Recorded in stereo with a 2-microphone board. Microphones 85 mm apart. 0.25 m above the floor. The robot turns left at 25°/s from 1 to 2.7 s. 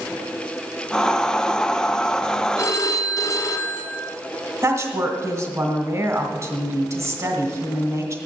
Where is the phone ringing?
35° left (ahead or behind), 1.7 m; by 4.0 s 40° left (ahead or behind), 1.7 m.